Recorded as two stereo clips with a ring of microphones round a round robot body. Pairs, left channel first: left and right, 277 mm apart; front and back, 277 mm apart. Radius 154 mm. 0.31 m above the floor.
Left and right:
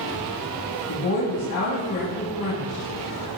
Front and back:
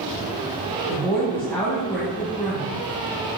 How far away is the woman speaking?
About 2.5 m.